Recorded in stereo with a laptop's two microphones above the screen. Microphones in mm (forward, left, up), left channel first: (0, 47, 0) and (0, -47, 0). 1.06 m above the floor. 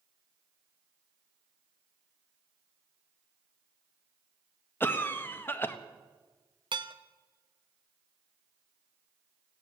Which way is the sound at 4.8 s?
20° left (ahead or behind).